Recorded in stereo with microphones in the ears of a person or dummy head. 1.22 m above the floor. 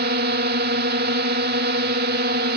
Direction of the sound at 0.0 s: 50° right (ahead or behind).